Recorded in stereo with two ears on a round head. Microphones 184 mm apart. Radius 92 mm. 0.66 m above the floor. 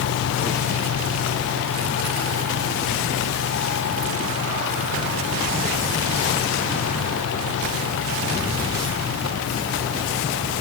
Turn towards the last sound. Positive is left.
No sound to turn to.